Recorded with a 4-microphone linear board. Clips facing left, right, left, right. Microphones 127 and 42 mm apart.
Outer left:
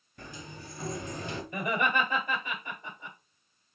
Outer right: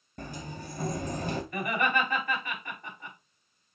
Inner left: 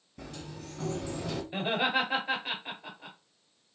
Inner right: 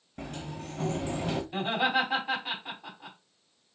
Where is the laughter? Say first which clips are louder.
Outer left 1 dB, inner right 1 dB; 20° left (ahead or behind), 1.8 m.